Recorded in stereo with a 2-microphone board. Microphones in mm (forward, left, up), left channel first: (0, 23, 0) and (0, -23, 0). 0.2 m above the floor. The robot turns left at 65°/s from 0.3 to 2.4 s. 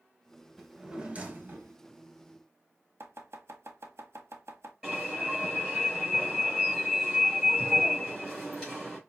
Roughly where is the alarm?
Centre.